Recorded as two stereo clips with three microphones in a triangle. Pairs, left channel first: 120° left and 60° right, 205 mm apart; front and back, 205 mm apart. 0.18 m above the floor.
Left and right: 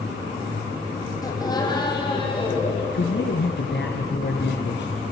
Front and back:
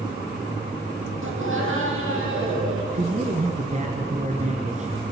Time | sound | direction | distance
1.2 | laughter | 165° right | 6 m
2.9 | a man speaking | 130° left | 2.5 m